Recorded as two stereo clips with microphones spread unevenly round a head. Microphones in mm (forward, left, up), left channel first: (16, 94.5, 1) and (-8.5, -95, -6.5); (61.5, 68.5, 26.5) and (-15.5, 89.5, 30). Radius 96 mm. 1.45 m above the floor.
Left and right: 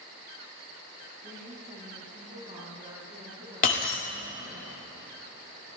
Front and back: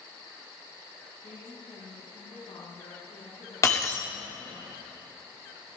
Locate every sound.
1.2 s a woman speaking: 35° right, 4 m
3.6 s breaking glass: 40° left, 2 m